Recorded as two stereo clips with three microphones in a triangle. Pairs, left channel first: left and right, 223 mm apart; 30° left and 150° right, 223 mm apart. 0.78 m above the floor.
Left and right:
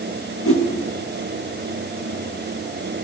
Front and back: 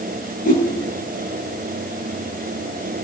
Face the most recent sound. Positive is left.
turn(degrees=80)